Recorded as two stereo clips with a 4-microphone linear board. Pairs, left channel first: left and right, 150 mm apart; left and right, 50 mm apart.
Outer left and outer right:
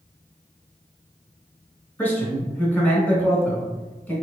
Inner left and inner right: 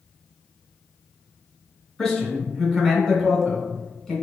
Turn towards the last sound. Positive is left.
turn(degrees=10)  # may be behind; listen again after turning